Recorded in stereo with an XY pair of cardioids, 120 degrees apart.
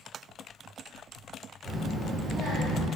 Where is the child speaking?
Straight ahead, 1.0 m; by 2.9 s 75° right, 0.9 m.